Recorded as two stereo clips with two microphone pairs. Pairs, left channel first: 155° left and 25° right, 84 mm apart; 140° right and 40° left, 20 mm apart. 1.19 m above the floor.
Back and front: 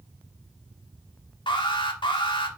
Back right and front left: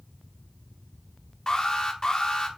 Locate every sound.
1.5 s an alarm: 165° left, 0.9 m